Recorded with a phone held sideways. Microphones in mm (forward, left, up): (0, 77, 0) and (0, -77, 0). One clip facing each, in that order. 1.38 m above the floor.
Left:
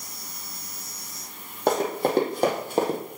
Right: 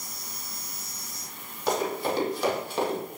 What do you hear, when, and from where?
1.7 s running footsteps: 55° left (ahead or behind), 2.5 m; by 3.0 s 40° left (ahead or behind), 1.7 m